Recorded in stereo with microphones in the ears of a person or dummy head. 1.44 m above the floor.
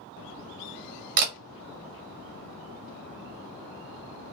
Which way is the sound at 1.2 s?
50° right (ahead or behind).